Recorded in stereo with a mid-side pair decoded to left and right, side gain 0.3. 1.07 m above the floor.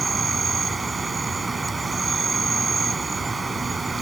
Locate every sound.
0.0 s an insect: 40° right